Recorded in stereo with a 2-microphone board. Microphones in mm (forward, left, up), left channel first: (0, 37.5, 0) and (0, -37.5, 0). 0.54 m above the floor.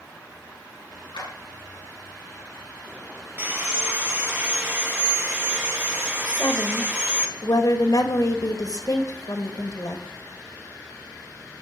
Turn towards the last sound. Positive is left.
turn(degrees=55)  # may be behind; listen again after turning